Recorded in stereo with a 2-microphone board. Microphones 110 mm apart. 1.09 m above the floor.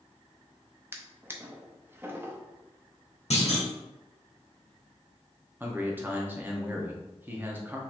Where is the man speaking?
20° right (ahead or behind), 1.0 m.